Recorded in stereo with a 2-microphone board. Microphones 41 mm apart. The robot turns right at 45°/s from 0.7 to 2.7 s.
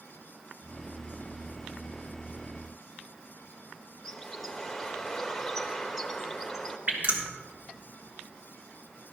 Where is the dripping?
40° right (ahead or behind), 2.5 m.